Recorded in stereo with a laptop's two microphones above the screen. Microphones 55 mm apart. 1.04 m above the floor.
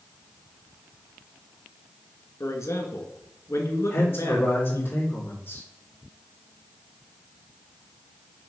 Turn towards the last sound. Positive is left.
turn(degrees=50)  # may be behind; listen again after turning